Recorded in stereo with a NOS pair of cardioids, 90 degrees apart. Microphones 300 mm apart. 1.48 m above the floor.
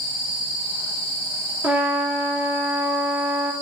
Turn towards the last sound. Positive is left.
turn(degrees=-5)